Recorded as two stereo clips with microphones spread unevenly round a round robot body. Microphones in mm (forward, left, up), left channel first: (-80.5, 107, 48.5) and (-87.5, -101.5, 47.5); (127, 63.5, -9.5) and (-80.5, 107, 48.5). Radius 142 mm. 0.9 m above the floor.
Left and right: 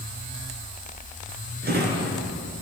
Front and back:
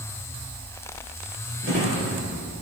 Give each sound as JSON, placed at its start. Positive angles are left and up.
{"t": 1.6, "sound": "a drawer", "azimuth_deg": -135, "distance_m": 6.5}